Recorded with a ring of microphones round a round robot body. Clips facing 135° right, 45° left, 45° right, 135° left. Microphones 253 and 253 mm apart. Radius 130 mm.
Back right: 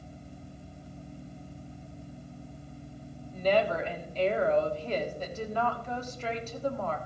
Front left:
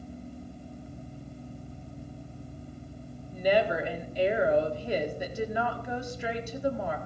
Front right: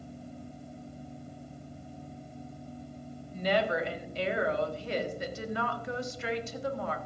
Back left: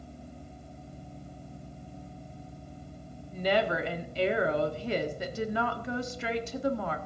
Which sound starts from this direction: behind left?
A woman speaking, at 3.3 s.